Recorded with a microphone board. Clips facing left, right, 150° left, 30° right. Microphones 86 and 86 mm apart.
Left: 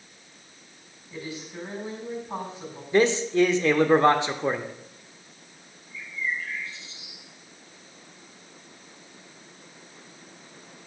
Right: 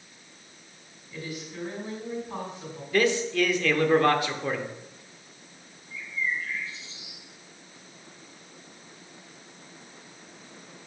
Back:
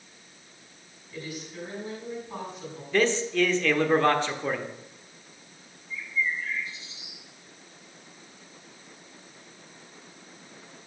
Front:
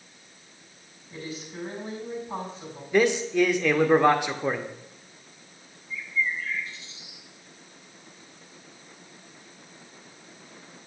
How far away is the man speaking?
About 0.8 m.